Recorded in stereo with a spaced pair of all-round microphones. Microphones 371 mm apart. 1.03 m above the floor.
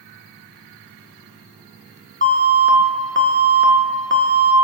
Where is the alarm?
30° right (ahead or behind), 0.8 m.